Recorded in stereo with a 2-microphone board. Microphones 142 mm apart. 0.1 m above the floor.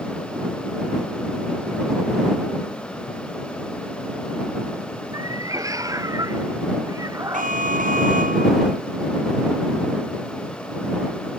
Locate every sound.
5.1 s a cat meowing: 25° right (ahead or behind)
7.3 s an alarm: 75° right (ahead or behind)